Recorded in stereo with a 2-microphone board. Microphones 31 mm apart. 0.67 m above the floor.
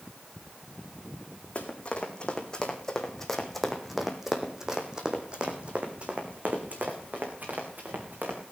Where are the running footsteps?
40° left (ahead or behind), 3 m; by 8.4 s 60° right (ahead or behind), 4 m.